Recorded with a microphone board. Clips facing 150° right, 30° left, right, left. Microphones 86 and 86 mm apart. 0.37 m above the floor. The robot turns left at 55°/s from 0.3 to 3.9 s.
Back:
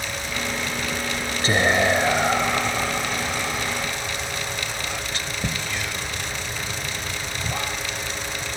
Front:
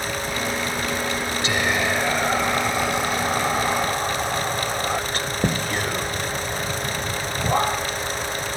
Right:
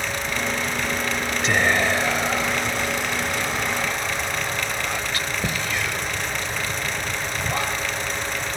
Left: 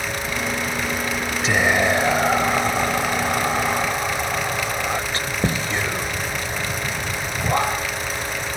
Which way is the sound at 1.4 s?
Straight behind.